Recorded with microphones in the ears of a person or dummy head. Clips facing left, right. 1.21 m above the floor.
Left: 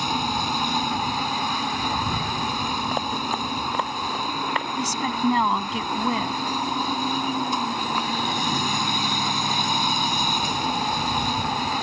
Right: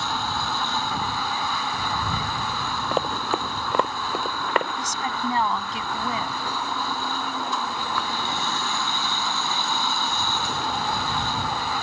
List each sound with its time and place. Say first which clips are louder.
0.0 s a machine running: left 3 dB; 15° left (ahead or behind)
2.9 s running footsteps: right 2 dB; 60° right (ahead or behind); by 4.7 s 50° right (ahead or behind)
4.8 s a woman speaking: left 4 dB; 75° left (ahead or behind)